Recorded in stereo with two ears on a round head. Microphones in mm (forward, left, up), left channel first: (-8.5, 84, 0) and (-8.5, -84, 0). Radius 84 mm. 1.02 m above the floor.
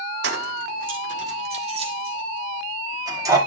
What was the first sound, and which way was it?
Keys jangling, 65° right (ahead or behind).